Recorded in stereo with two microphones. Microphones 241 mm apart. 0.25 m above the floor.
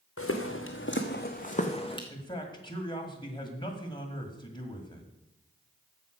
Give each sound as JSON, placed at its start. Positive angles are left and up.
{"t": 0.2, "sound": "footsteps", "side_deg": 75, "distance_m": 1.6}
{"t": 2.1, "sound": "a man speaking", "side_deg": 20, "distance_m": 1.8}